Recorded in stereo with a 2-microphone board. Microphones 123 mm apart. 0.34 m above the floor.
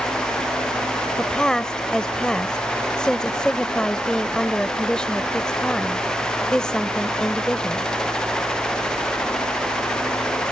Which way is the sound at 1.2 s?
5° left (ahead or behind).